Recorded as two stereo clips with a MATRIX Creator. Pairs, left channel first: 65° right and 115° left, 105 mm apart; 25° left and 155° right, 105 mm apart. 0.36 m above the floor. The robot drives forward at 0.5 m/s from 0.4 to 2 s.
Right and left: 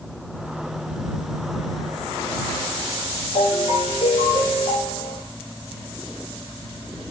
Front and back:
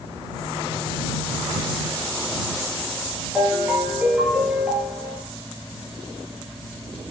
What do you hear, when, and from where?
3.4 s a ringtone: 80° right, 4 m